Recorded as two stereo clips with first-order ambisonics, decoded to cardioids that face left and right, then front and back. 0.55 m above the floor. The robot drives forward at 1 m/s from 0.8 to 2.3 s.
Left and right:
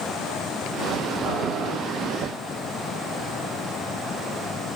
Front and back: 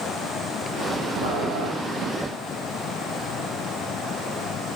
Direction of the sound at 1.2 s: 150° right.